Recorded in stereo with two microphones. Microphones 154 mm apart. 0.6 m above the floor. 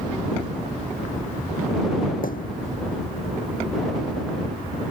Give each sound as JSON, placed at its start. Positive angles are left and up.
{"t": 2.2, "sound": "a thud", "side_deg": 75}